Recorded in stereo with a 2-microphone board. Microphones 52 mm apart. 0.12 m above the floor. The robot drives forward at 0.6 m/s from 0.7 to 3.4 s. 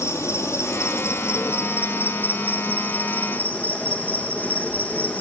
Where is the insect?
65° left (ahead or behind), 1.4 m; by 5.2 s 30° left (ahead or behind), 2.5 m.